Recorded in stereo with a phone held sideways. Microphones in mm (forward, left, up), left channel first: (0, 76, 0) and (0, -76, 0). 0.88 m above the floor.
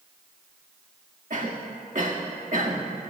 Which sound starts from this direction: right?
A cough, at 1.3 s.